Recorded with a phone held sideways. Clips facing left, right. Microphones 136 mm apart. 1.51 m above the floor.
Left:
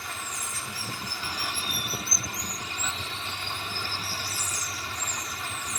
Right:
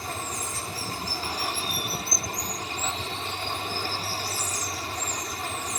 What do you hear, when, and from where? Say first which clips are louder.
0.0 s running water: right 5 dB; 40° right (ahead or behind)